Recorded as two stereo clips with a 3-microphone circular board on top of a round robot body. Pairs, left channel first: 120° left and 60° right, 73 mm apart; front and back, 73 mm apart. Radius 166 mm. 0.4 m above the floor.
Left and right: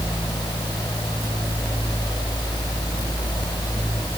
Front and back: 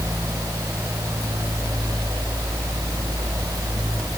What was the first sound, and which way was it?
Only background noise.